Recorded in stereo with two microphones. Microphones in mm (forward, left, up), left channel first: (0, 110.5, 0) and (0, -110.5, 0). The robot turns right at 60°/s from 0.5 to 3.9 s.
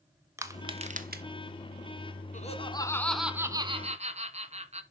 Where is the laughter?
130° left, 1.4 m; by 4.8 s 135° right, 1.4 m.